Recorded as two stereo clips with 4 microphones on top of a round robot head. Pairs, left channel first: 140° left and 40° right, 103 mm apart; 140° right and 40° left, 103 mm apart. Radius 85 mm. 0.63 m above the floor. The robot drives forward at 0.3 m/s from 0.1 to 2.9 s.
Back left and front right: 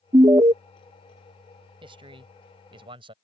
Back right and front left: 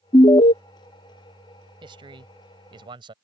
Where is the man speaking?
5° right.